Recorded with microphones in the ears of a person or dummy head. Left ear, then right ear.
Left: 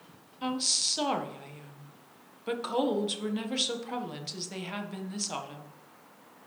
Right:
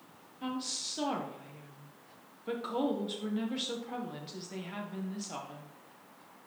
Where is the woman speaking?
30° left (ahead or behind), 1.5 m.